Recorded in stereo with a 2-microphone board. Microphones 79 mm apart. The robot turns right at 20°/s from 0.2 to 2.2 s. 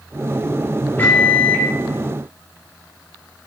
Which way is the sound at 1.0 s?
25° left (ahead or behind).